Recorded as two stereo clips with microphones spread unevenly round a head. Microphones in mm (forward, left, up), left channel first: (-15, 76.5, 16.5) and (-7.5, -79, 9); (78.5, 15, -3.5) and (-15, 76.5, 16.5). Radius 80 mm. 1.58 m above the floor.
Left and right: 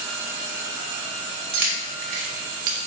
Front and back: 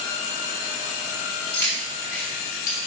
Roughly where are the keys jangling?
Behind right.